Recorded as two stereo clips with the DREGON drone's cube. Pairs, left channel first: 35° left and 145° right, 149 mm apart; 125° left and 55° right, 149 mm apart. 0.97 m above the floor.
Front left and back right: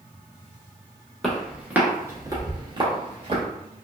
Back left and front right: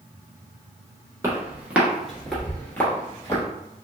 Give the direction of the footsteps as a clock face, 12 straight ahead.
2 o'clock.